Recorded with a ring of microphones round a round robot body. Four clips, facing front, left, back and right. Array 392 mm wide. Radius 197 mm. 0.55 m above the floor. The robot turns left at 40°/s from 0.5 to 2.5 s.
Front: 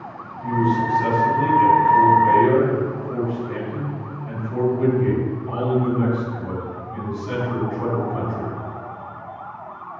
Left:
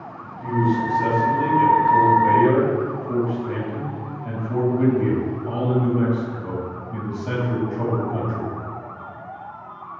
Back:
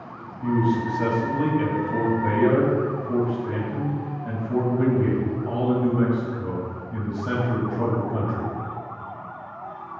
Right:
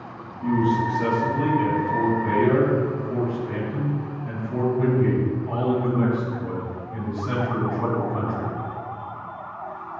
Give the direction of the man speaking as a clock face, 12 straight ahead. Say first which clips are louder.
Even, front 2 dB; 5 o'clock.